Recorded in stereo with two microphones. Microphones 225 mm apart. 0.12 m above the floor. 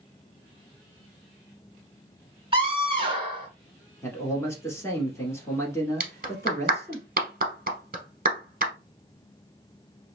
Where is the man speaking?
10° left (ahead or behind), 1.3 m.